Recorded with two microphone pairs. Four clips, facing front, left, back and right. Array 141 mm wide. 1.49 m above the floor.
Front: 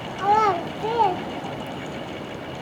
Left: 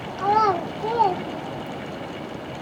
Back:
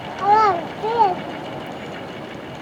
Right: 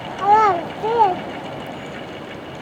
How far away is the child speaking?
About 0.7 m.